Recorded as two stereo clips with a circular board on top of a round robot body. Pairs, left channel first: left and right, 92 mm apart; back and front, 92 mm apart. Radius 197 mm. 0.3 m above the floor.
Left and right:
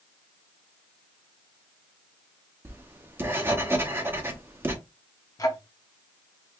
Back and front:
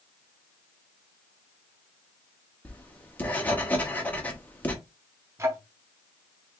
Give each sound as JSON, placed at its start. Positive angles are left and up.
{"t": 2.6, "sound": "writing", "azimuth_deg": -125, "distance_m": 1.5}
{"t": 5.4, "sound": "ticking", "azimuth_deg": 50, "distance_m": 1.2}